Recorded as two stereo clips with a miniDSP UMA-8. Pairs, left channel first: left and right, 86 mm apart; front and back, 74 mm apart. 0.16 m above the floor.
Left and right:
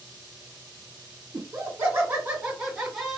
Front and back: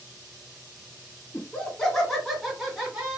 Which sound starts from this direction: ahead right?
Laughter, at 1.3 s.